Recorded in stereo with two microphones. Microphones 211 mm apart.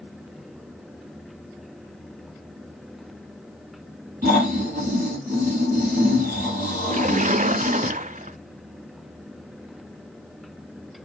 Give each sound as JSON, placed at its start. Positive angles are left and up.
{"t": 4.2, "sound": "snoring", "side_deg": -40, "distance_m": 5.5}
{"t": 6.9, "sound": "a splash", "side_deg": -40, "distance_m": 0.6}